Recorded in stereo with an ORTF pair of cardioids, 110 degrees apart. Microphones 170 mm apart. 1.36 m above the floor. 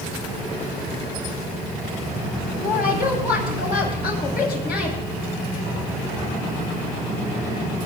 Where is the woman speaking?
65° left, 10 m.